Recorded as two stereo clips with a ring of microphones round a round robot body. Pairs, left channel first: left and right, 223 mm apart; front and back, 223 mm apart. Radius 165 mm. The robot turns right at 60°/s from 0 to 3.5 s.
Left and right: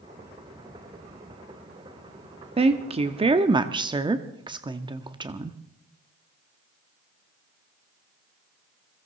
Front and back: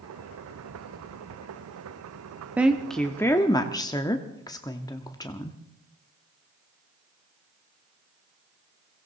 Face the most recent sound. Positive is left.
turn(degrees=-50)